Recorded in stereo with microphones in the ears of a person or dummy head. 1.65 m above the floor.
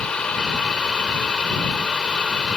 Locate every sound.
0.0 s a fan: 5° left (ahead or behind)